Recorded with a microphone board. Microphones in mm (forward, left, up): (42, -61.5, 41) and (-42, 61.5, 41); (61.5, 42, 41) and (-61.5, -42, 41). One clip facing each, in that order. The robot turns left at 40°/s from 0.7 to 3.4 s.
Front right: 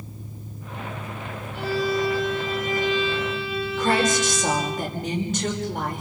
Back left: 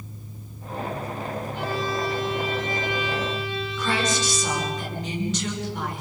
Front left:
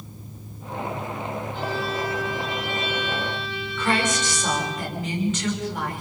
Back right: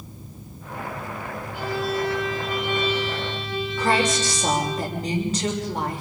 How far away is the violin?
About 9.5 m.